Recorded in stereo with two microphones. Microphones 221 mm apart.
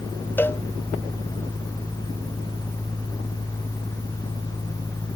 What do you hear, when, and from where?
0.4 s a cowbell: 10° left (ahead or behind)